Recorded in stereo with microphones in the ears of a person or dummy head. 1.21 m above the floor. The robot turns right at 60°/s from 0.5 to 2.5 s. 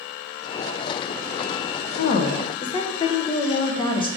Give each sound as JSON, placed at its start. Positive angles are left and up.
{"t": 2.0, "sound": "a woman speaking", "azimuth_deg": 125, "distance_m": 0.6}